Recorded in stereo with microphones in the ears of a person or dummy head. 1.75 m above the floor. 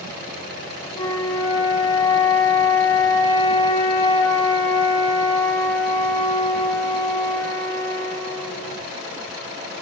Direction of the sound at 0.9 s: 30° left (ahead or behind).